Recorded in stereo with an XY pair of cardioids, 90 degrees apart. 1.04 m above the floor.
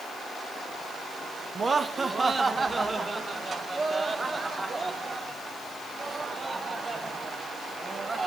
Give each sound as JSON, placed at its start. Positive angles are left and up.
{"t": 1.6, "sound": "laughter", "azimuth_deg": -35, "distance_m": 1.6}